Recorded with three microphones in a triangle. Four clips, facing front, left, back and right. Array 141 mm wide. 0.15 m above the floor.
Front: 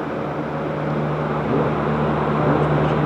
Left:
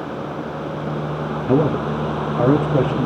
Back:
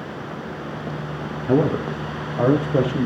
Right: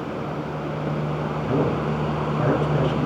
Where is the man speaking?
135° left, 2.5 m.